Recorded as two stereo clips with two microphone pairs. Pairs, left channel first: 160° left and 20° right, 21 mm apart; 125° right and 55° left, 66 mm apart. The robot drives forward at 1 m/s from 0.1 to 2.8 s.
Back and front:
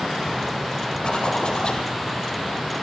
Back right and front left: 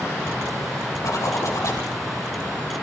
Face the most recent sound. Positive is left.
turn(degrees=-165)